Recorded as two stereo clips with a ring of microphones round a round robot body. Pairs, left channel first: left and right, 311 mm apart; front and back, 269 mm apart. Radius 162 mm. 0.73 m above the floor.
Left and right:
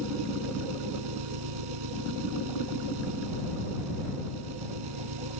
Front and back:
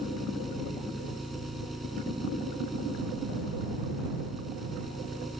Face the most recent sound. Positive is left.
turn(degrees=-90)